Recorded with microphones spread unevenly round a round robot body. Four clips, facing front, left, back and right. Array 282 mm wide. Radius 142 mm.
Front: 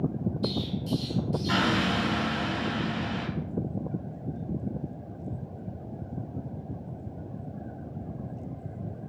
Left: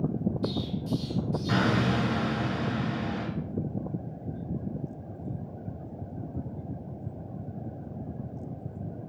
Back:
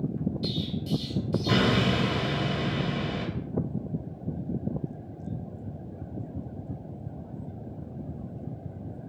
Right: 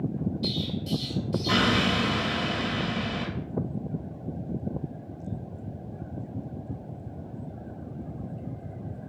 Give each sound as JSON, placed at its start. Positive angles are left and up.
{"t": 0.4, "sound": "an explosion", "azimuth_deg": 180, "distance_m": 0.6}